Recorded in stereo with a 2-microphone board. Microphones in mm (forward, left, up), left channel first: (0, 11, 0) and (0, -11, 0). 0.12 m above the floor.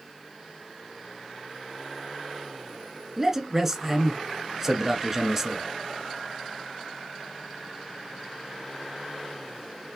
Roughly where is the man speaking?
Centre.